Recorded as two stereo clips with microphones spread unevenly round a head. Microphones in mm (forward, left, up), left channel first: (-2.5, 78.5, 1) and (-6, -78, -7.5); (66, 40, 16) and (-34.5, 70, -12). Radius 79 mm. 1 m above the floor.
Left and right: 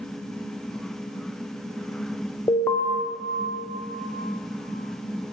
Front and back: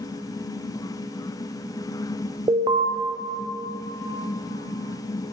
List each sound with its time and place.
2.5 s an alarm: 160° left, 0.6 m